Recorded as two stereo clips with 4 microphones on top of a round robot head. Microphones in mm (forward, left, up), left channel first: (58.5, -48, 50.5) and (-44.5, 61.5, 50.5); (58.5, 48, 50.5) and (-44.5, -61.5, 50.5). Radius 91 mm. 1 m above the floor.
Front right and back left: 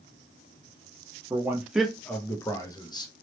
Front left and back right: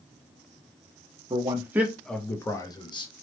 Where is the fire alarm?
No fire alarm in this recording.